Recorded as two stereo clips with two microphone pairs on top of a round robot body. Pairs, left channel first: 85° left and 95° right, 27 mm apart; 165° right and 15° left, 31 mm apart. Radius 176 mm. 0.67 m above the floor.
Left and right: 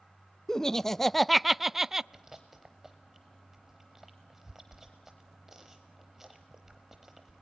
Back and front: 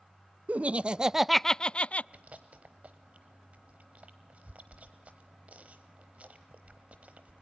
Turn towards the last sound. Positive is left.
turn(degrees=-20)